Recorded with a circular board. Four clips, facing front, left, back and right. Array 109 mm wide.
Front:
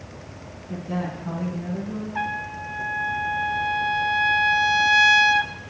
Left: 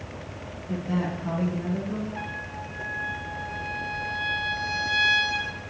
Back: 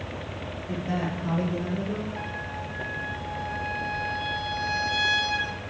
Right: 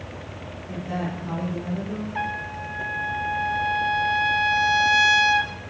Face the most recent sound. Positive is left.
turn(degrees=-40)